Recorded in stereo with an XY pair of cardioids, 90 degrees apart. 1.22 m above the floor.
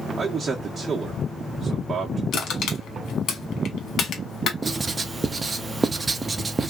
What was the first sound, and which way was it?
A man speaking, 40° right.